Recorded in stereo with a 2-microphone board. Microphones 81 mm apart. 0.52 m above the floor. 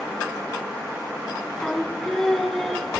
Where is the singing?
5° left (ahead or behind), 2.0 m.